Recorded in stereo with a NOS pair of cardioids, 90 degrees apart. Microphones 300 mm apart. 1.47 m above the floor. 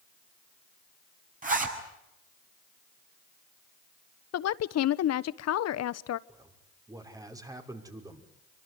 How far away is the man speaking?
About 5.5 m.